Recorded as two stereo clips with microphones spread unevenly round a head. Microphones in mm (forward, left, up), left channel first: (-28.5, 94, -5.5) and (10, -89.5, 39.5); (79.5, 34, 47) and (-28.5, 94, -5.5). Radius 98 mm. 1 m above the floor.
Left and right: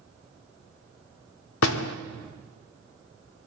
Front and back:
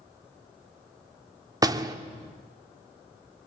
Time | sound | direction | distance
1.6 | a door slam | 85° left | 1.5 m